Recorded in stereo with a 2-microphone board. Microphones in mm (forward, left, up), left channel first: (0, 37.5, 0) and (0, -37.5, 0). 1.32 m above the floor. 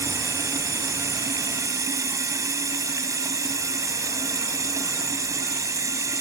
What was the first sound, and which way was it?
Running water, 45° right (ahead or behind).